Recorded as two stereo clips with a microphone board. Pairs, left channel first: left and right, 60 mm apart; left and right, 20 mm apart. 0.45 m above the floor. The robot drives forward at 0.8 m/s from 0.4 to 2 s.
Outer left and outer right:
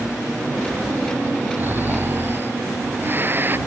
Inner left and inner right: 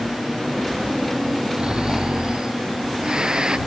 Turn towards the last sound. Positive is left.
turn(degrees=-35)  # may be behind; listen again after turning